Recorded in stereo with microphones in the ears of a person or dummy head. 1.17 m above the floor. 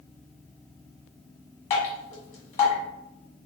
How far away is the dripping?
About 1.5 m.